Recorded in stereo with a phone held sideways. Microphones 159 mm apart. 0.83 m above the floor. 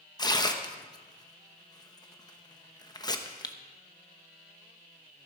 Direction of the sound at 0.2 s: 25° left (ahead or behind).